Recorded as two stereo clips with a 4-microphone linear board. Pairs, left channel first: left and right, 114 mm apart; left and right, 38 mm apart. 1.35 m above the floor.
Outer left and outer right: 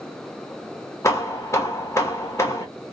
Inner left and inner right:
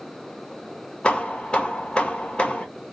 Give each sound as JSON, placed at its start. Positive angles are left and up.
{"t": 1.0, "sound": "hammering", "side_deg": 25, "distance_m": 1.2}